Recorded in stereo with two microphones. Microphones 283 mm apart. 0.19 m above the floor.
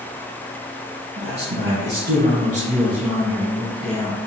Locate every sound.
1.2 s a man speaking: 50° right (ahead or behind), 1.9 m; by 4.2 s 10° left (ahead or behind), 1.5 m